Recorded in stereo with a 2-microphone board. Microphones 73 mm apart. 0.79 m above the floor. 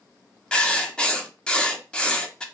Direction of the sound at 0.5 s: 15° left (ahead or behind).